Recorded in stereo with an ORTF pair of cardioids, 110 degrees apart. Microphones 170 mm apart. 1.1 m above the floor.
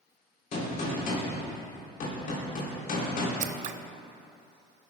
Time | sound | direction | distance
0.5 | a gunshot | 60° left | 4 m
3.4 | scissors | 50° right | 0.5 m